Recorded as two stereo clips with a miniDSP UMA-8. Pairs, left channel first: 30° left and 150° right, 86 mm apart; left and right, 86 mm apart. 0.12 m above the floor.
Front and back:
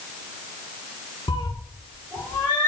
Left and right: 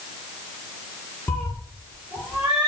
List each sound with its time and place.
1.3 s a cat meowing: 25° left, 1.3 m; by 2.7 s 15° right, 2.0 m